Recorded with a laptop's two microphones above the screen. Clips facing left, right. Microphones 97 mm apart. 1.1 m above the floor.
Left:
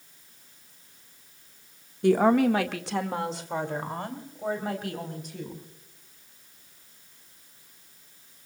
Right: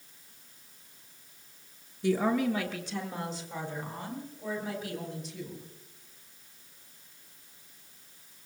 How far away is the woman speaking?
About 1.4 m.